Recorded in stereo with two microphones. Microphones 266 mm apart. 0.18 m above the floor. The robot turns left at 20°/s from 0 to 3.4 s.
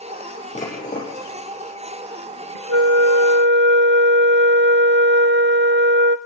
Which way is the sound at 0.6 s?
25° left (ahead or behind).